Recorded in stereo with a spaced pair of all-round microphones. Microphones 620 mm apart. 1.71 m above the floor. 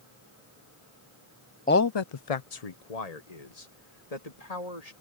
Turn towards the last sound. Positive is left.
turn(degrees=80)